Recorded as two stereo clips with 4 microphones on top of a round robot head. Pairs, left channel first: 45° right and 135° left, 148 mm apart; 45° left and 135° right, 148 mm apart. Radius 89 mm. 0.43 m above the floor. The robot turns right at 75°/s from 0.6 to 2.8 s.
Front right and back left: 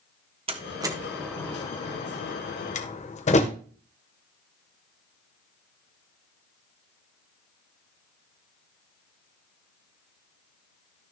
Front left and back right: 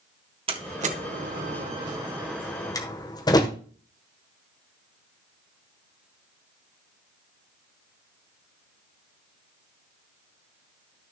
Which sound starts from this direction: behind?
A door slam, at 0.5 s.